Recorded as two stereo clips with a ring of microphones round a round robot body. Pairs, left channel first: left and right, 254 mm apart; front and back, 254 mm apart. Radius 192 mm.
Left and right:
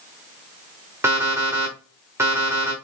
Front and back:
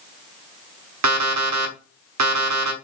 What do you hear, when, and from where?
1.0 s an alarm clock: 170° right, 0.9 m